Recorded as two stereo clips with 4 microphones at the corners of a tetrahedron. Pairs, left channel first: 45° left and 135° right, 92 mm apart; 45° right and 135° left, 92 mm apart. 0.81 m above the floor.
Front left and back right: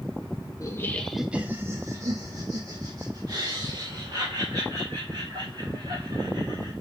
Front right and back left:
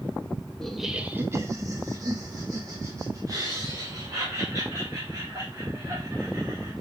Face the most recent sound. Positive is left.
turn(degrees=-175)